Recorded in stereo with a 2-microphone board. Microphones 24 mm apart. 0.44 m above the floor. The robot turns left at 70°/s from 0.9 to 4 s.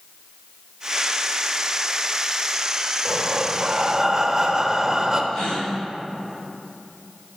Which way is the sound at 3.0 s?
90° right.